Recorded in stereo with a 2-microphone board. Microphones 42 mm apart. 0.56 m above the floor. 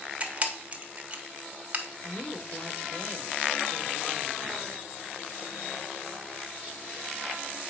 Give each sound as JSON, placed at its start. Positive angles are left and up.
{"t": 0.2, "sound": "a camera shutter", "side_deg": -30, "distance_m": 1.2}
{"t": 2.0, "sound": "a woman speaking", "side_deg": 50, "distance_m": 1.7}